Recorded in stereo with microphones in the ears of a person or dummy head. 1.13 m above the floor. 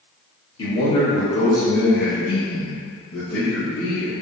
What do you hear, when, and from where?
0.6 s a man speaking: 25° left (ahead or behind), 1.4 m; by 4.1 s 40° left (ahead or behind), 1.4 m